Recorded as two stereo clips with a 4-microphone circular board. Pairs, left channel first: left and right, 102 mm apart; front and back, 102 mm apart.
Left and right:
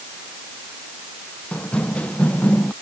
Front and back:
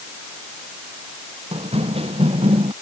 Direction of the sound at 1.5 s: 170° left.